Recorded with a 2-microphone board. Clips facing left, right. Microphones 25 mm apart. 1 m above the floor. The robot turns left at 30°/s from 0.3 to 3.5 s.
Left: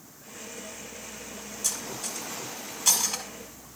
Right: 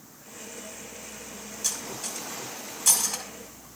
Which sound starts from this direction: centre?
Cutlery clinking, at 1.6 s.